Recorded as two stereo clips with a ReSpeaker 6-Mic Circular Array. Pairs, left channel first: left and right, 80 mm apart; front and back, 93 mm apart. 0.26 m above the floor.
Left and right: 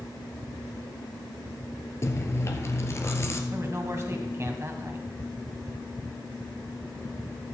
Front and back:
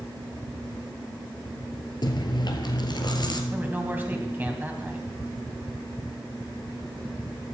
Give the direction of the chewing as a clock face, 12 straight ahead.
11 o'clock.